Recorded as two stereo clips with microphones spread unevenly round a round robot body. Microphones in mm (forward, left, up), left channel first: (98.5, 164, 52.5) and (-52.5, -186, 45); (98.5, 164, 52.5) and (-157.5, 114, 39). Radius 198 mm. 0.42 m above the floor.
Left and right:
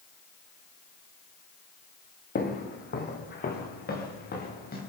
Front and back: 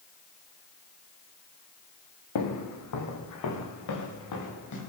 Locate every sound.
2.4 s footsteps: straight ahead, 2.5 m